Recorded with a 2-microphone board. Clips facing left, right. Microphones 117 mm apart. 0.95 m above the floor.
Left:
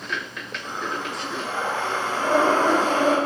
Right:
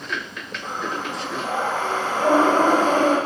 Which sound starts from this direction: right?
Breathing, at 0.6 s.